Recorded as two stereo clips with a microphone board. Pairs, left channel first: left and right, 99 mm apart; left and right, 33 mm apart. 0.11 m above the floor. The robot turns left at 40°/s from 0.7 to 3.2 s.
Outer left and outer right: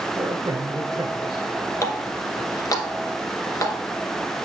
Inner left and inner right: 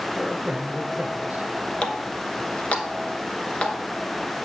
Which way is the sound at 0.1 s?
75° right.